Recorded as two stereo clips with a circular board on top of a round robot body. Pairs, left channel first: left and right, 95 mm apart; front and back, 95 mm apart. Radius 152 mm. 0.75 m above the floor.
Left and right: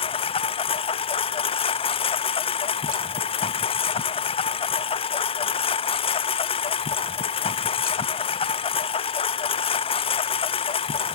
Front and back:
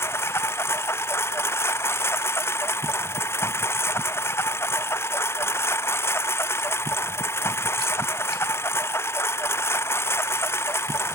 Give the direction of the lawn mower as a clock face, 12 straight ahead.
10 o'clock.